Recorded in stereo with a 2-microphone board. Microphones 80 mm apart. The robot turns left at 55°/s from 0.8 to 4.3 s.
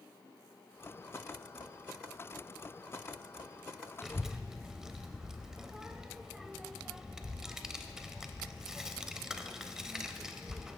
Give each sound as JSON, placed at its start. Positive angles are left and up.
{"t": 4.0, "sound": "a child speaking", "side_deg": 0, "distance_m": 0.5}